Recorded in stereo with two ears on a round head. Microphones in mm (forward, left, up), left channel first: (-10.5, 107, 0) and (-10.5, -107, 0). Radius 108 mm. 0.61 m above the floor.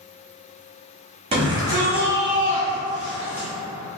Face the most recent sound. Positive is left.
turn(degrees=25)  # may be behind; listen again after turning